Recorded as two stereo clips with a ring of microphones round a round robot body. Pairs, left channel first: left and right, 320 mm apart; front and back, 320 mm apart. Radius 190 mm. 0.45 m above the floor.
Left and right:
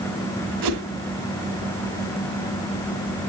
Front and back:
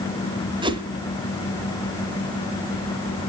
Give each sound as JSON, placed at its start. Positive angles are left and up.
{"t": 0.6, "sound": "a whoosh", "azimuth_deg": -105, "distance_m": 1.7}